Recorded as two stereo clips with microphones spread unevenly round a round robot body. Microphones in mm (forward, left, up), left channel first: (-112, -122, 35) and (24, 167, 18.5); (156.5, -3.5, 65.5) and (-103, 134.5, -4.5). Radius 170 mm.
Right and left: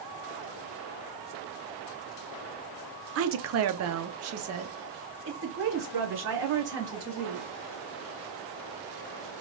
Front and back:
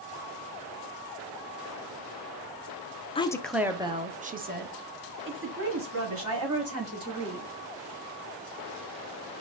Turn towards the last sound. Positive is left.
turn(degrees=120)